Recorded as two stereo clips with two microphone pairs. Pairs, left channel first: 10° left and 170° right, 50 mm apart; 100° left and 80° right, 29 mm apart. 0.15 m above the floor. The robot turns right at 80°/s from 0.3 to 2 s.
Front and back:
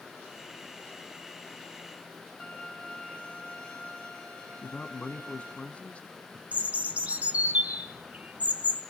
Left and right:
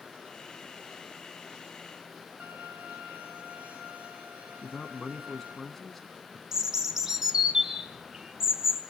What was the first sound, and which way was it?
A violin, 50° right.